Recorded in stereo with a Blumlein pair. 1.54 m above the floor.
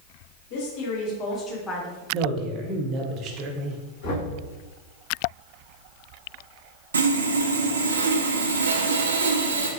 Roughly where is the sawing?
Right.